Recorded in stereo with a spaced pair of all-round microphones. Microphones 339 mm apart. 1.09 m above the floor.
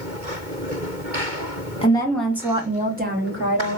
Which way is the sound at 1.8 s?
15° left (ahead or behind).